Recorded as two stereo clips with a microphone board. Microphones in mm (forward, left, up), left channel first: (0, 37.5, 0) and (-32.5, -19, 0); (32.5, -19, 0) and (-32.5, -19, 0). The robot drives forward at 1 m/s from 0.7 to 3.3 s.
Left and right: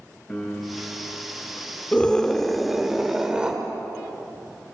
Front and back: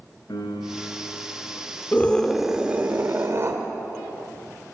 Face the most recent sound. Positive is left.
turn(degrees=170)